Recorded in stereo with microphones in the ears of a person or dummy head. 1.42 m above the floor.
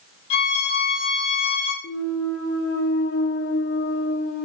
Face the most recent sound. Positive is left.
turn(degrees=75)  # may be behind; listen again after turning